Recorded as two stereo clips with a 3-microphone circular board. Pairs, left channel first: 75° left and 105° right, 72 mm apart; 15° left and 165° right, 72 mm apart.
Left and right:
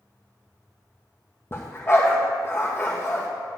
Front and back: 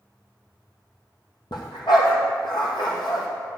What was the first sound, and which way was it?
A dog barking, 20° left.